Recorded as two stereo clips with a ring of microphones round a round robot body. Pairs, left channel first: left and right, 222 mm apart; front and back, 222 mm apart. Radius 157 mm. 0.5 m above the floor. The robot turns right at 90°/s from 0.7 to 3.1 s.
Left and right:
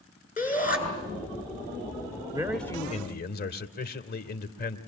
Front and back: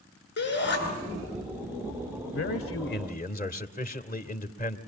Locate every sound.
0.4 s a shout: 35° left, 8 m; by 0.8 s 45° left, 8 m
2.3 s a man speaking: 20° right, 2 m; by 4.8 s 50° left, 2 m